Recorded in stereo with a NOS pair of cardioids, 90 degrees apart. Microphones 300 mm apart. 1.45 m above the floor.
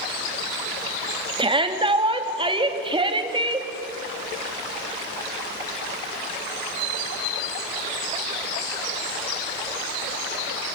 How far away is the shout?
About 3.5 m.